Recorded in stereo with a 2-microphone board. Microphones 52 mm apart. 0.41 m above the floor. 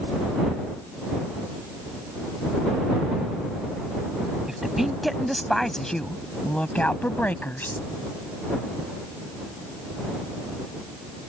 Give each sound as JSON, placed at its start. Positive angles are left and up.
{"t": 4.5, "sound": "a woman speaking", "side_deg": -10}